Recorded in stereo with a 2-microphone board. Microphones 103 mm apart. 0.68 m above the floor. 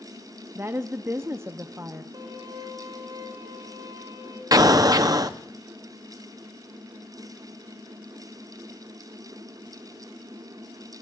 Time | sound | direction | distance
0.6 | a woman speaking | 25° right (ahead or behind) | 0.5 m
2.1 | a violin | 40° right (ahead or behind) | 3 m
4.5 | an explosion | 35° right (ahead or behind) | 0.6 m